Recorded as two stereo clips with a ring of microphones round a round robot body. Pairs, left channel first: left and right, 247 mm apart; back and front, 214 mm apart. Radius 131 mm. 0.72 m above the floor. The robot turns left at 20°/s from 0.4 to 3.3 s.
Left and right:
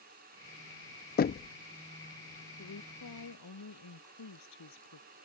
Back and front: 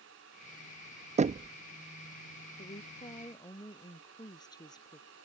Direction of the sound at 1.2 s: 50° left.